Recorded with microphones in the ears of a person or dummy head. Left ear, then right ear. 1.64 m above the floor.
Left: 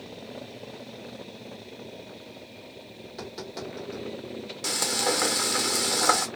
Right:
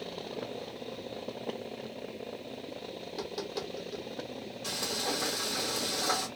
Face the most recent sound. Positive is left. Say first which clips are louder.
# left 7 dB
turn(degrees=65)  # may be behind; listen again after turning